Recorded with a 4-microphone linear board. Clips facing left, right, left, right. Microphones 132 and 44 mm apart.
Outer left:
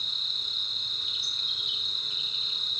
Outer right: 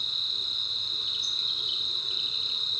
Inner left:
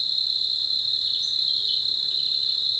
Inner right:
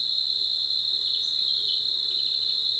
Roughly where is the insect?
Right.